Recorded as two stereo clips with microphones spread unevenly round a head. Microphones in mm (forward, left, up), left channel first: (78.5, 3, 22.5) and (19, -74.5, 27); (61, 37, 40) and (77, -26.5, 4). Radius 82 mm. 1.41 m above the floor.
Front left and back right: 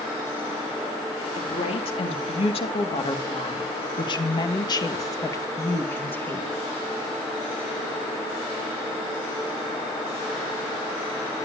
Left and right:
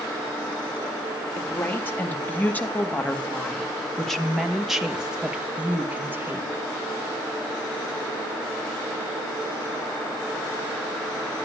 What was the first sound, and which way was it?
A woman speaking, 45° left.